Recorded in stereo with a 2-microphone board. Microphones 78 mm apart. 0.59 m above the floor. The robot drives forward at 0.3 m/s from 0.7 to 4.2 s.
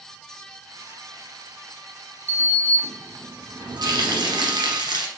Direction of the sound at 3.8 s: 75° right (ahead or behind).